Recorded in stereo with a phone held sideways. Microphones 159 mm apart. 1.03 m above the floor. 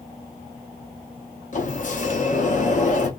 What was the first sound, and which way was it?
A sliding door, 50° left (ahead or behind).